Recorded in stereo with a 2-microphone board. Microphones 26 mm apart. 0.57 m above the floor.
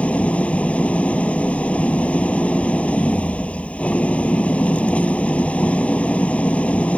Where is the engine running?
65° left (ahead or behind).